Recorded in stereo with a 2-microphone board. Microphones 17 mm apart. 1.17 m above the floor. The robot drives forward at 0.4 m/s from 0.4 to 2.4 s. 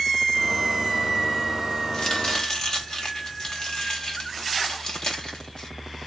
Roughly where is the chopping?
Left.